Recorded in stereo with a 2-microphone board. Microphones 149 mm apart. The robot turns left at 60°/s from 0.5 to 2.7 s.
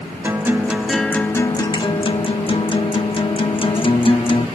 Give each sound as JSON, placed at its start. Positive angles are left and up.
{"t": 0.2, "sound": "a guitar", "azimuth_deg": -160, "distance_m": 0.9}